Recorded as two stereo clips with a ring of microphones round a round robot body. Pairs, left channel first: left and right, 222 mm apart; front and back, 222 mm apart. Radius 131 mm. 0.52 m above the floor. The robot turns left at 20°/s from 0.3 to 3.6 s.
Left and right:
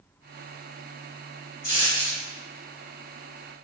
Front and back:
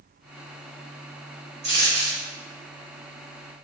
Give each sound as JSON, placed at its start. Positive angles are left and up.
{"t": 1.6, "sound": "a dropped coin", "azimuth_deg": 140, "distance_m": 1.4}